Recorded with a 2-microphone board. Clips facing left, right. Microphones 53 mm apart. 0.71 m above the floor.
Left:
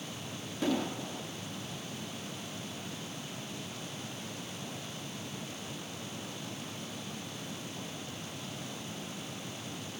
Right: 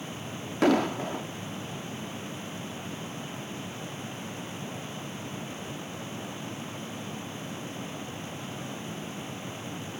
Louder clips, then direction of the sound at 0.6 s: Right 9 dB; 60° right (ahead or behind).